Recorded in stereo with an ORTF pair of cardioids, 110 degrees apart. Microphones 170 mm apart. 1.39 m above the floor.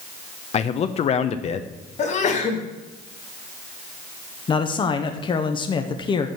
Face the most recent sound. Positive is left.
turn(degrees=30)